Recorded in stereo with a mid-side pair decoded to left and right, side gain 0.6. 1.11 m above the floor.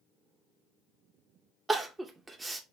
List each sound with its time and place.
1.7 s crying: 20° right, 0.6 m